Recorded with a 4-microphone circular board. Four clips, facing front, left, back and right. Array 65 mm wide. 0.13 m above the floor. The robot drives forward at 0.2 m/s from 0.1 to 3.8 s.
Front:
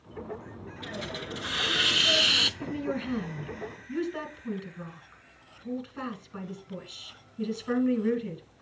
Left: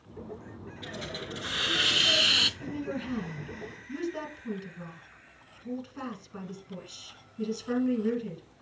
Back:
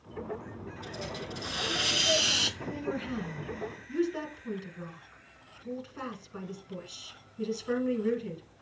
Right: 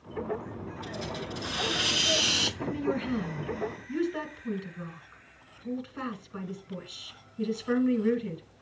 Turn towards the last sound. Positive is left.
turn(degrees=-35)